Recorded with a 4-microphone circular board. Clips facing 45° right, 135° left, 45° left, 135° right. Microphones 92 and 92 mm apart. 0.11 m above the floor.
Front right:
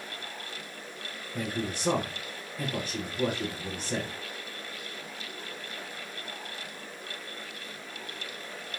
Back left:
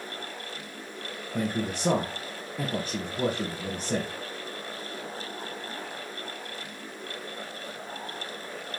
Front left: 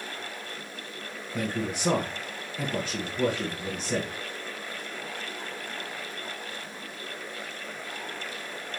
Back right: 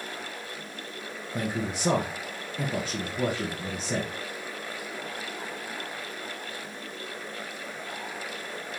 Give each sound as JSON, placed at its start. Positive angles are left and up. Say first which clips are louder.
{"t": 1.3, "sound": "a man speaking", "louder": "back left 4 dB, even", "azimuth_deg": 155, "distance_m": 2.0}